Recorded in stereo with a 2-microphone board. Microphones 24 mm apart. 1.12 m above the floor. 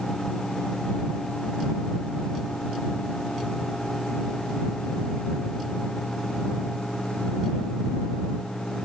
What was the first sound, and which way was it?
Only background noise.